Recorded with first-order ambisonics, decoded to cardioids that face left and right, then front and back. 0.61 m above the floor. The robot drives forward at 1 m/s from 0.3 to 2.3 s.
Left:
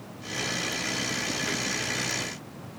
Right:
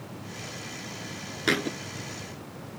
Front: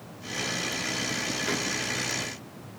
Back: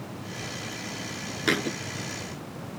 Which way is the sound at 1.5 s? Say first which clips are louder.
Right 3 dB, back 7 dB; 135° right.